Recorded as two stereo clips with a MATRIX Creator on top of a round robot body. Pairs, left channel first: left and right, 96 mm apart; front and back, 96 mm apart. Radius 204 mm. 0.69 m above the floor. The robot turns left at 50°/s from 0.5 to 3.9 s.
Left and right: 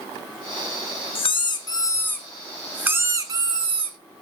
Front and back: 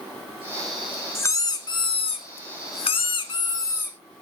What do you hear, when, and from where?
1.1 s a squeak: 65° left, 0.7 m; by 4.0 s 70° right, 0.7 m